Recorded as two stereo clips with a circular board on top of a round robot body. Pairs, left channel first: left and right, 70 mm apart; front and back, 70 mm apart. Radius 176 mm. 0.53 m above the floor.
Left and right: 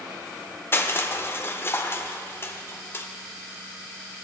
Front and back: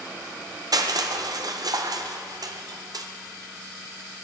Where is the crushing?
150° left, 0.8 m.